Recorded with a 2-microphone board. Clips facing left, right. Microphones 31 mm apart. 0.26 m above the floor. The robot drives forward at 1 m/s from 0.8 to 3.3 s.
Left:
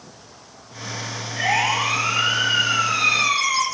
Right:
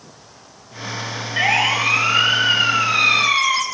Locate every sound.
1.4 s a siren: 45° right (ahead or behind), 7 m; by 3.6 s 30° right (ahead or behind), 4.5 m